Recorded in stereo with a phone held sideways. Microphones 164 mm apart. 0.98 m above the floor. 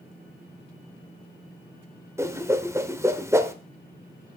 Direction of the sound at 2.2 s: 15° right (ahead or behind).